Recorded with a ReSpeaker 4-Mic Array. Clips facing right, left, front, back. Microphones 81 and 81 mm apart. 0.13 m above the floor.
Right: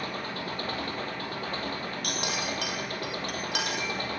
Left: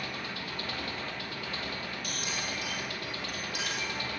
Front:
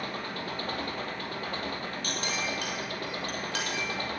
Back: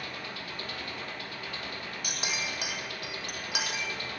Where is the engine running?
45° right, 2.5 m.